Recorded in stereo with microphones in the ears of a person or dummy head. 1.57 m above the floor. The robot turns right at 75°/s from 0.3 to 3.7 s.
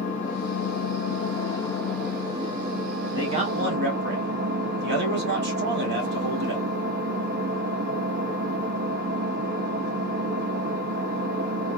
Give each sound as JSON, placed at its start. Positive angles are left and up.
{"t": 0.0, "sound": "an engine running", "azimuth_deg": 50, "distance_m": 1.3}
{"t": 3.1, "sound": "a man speaking", "azimuth_deg": -165, "distance_m": 1.3}